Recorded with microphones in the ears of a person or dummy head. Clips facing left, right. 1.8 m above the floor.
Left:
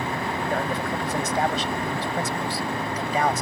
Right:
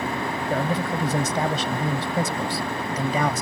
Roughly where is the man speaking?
Right.